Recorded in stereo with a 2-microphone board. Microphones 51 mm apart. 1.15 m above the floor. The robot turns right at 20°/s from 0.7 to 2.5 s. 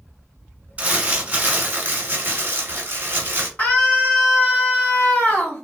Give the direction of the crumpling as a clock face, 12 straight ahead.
5 o'clock.